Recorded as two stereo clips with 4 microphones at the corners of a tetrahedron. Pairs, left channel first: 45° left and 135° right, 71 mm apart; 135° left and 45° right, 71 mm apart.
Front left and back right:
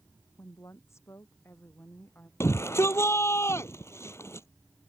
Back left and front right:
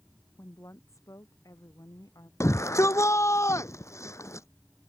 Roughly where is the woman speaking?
Left.